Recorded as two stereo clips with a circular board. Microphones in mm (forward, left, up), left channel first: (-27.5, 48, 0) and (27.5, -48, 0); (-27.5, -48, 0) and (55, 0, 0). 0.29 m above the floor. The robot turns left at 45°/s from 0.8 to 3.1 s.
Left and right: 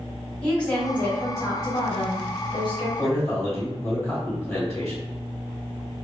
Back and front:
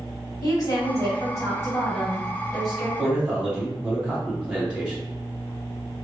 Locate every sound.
0.4 s a woman speaking: 170° right, 1.5 m; by 2.9 s 100° left, 1.5 m
3.0 s a man speaking: 95° left, 1.4 m; by 5.0 s 90° left, 1.4 m